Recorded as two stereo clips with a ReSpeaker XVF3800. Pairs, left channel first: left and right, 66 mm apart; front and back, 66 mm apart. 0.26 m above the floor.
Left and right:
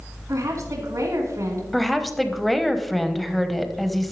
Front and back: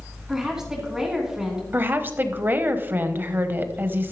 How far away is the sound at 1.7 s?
About 1.1 m.